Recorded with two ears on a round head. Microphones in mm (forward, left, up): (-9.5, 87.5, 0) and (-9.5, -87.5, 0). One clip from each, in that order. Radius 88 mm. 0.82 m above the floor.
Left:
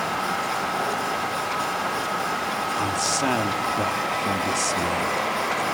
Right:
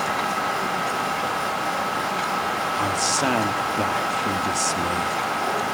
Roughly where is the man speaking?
Centre.